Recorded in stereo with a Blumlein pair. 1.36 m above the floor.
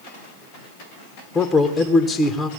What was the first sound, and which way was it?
A man speaking, 15° left.